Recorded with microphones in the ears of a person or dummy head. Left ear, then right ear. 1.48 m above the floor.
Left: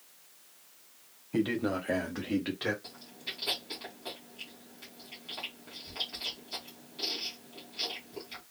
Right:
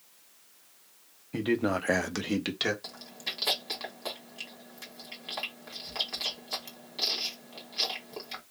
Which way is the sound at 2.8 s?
55° right (ahead or behind).